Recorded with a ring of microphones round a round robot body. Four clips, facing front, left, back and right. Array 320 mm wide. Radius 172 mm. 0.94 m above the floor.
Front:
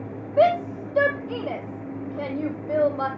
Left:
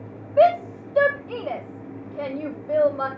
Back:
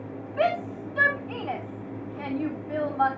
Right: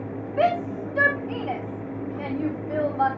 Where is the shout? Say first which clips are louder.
Left 6 dB, front 7 dB; 35° left, 4.5 m.